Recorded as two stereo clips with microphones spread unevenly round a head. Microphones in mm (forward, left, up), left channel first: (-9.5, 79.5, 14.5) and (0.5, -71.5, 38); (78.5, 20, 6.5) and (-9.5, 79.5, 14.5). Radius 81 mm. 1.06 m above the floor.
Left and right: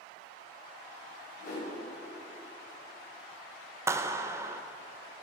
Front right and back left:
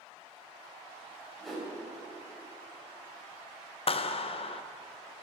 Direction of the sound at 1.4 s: 55° left.